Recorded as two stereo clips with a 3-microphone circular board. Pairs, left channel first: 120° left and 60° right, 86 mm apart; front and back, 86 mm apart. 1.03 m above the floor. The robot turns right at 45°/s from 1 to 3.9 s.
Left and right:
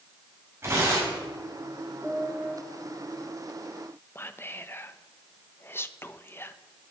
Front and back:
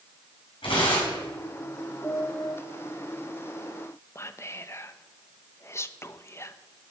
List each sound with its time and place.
0.6 s tearing paper: straight ahead, 6 m; by 1.2 s 10° left, 6 m
2.0 s a piano: 45° left, 6.5 m; by 2.5 s 70° left, 6.5 m
4.2 s whispering: 60° left, 0.6 m